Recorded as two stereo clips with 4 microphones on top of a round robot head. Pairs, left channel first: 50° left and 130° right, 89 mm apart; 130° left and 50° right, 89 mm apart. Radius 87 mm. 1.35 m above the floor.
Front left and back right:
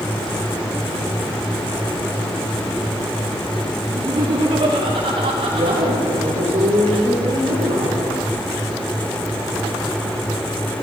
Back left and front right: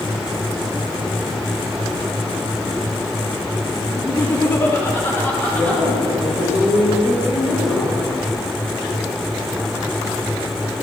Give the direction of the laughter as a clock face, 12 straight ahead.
6 o'clock.